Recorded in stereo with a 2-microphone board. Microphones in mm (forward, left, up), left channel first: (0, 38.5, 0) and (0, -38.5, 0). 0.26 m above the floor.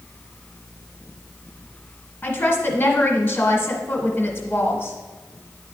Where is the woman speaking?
25° left (ahead or behind), 1.2 m.